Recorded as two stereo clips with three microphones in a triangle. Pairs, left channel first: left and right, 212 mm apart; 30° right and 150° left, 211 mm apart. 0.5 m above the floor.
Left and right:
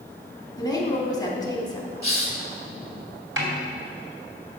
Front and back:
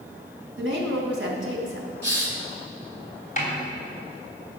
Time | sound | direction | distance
0.6 | a woman speaking | 160° left | 3 m
2.0 | a hiss | 130° left | 2.0 m
3.4 | a snare drum | 80° right | 3 m